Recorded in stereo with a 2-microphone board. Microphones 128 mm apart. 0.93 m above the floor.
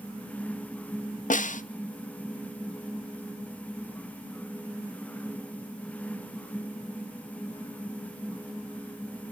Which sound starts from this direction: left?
A snare drum, at 1.3 s.